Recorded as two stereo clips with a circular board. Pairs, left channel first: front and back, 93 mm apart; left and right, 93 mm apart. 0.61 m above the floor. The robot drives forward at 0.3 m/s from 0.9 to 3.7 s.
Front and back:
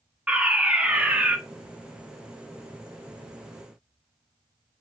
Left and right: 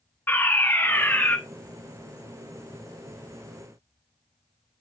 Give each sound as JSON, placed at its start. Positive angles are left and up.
{"t": 0.3, "sound": "a fire alarm", "azimuth_deg": 120, "distance_m": 1.6}